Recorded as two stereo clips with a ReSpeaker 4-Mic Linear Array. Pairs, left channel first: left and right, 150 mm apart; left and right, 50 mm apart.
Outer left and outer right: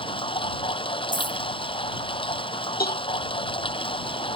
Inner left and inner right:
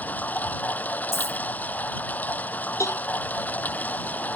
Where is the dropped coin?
55° left (ahead or behind).